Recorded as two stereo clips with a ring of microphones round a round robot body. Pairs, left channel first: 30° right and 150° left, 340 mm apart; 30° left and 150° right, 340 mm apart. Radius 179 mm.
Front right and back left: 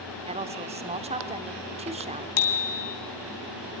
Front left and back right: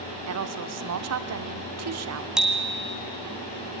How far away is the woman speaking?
About 1.5 m.